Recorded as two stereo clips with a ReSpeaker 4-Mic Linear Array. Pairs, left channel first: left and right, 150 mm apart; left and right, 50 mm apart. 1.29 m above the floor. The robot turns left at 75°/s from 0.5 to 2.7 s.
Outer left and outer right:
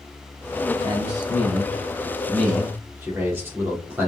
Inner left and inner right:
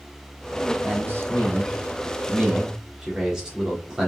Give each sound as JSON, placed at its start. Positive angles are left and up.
{"t": 0.8, "sound": "a man speaking", "azimuth_deg": -25, "distance_m": 4.0}